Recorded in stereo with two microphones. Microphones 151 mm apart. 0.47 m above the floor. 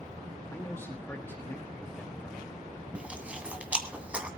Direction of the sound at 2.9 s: 10° right (ahead or behind).